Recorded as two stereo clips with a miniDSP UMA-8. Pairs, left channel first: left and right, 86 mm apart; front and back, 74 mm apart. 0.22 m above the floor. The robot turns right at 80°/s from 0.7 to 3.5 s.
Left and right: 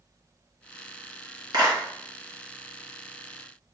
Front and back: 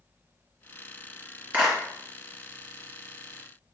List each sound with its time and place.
1.5 s a clap: 120° right, 3 m; by 1.8 s 100° right, 3 m